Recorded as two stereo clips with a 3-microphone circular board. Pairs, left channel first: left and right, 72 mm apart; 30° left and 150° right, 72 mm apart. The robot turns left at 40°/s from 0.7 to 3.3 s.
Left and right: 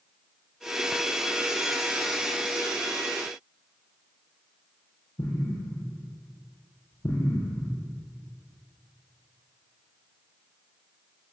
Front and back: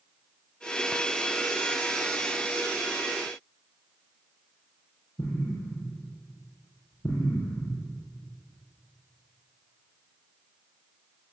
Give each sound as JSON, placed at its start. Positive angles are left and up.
{"t": 5.2, "sound": "an explosion", "azimuth_deg": 70, "distance_m": 7.5}